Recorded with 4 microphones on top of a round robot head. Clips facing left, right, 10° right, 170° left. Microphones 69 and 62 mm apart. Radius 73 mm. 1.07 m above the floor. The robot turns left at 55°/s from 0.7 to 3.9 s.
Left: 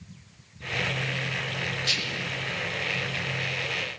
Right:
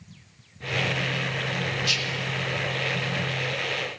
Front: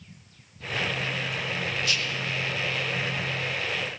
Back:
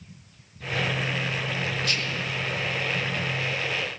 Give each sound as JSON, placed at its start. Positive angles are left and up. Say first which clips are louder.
{"t": 1.8, "sound": "whispering", "louder": "right 2 dB, even", "azimuth_deg": 135, "distance_m": 0.8}